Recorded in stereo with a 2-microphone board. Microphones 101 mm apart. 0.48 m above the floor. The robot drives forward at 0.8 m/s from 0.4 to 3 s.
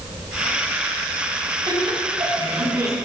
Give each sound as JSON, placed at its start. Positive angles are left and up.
{"t": 1.7, "sound": "laughter", "side_deg": -50, "distance_m": 3.5}